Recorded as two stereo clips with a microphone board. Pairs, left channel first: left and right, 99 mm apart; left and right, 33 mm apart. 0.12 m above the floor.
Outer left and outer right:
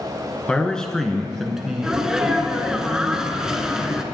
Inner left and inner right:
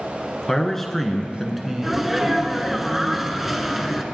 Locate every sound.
0.5 s a man speaking: 10° left (ahead or behind), 1.5 m; by 2.8 s 20° right (ahead or behind), 1.8 m
1.8 s a sneeze: 5° right (ahead or behind), 1.3 m